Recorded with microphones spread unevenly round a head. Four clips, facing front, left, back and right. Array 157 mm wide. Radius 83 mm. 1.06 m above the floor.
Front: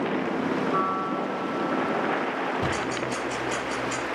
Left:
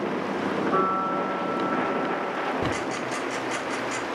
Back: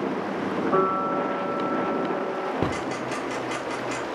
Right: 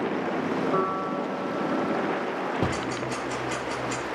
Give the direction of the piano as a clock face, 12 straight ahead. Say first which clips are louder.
Left 2 dB, back 3 dB; 6 o'clock.